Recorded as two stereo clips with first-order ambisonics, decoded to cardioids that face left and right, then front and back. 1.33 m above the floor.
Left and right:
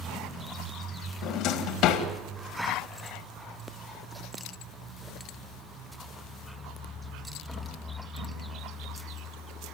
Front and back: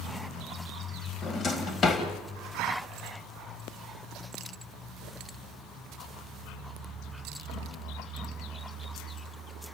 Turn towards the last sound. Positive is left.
turn(degrees=60)